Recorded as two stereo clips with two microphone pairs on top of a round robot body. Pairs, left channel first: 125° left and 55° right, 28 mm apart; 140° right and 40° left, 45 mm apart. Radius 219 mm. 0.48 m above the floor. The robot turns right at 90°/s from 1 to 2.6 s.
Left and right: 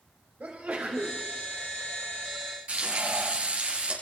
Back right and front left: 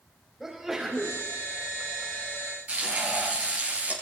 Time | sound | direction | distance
0.4 | a sneeze | 45° right | 4.5 m
2.7 | frying | 15° right | 5.5 m